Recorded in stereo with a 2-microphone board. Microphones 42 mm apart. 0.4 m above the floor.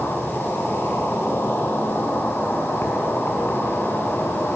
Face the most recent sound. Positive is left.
turn(degrees=70)  # may be behind; listen again after turning